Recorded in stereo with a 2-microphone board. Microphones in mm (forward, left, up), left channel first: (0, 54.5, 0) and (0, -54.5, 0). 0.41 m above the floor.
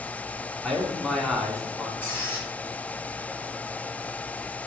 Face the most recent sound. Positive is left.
turn(degrees=20)  # may be behind; listen again after turning